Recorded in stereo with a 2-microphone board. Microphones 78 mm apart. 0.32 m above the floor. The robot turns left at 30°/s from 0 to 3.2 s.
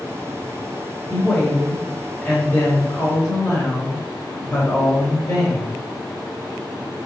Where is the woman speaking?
5° left (ahead or behind), 1.1 m; by 5.8 s 25° left (ahead or behind), 1.1 m.